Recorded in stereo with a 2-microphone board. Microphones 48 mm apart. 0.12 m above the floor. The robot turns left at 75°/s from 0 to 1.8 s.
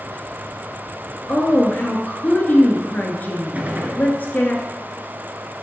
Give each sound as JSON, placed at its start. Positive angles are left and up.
{"t": 1.3, "sound": "a woman speaking", "azimuth_deg": 115, "distance_m": 1.5}
{"t": 3.5, "sound": "a gunshot", "side_deg": -35, "distance_m": 1.4}